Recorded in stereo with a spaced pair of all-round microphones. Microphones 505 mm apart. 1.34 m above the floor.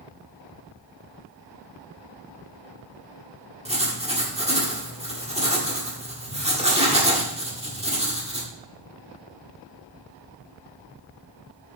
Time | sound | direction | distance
3.6 | writing | 10° right (ahead or behind) | 1.6 m